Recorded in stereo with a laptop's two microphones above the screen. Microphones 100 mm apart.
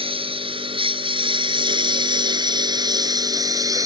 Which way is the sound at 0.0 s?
80° right.